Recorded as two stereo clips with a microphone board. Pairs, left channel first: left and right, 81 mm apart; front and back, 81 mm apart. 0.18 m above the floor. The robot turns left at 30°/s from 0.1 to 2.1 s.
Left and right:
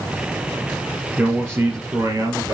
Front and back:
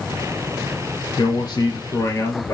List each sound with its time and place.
1.2 s a man speaking: 20° right, 2.5 m; by 2.5 s 50° right, 2.5 m